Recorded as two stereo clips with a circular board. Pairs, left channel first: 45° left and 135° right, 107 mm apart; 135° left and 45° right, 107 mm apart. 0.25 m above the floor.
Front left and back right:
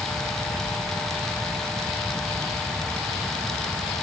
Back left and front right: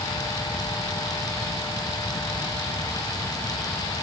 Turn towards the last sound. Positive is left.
No sound to turn to.